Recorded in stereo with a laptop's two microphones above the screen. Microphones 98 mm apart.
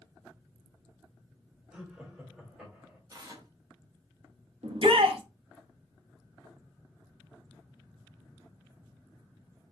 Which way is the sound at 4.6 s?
70° right (ahead or behind).